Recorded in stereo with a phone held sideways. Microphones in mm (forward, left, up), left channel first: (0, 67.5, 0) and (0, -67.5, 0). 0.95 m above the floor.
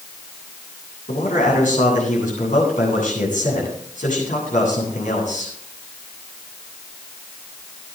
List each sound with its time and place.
1.1 s a man speaking: 70° left (ahead or behind), 8.5 m